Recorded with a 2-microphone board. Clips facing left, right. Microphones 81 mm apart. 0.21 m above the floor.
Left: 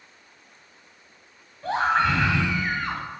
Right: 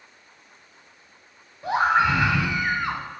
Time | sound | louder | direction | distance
1.6 | a scream | right 2 dB | 10° right (ahead or behind) | 1.0 m